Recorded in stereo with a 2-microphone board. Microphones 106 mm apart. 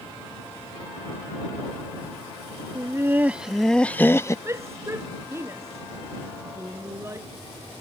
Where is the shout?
25° right (ahead or behind).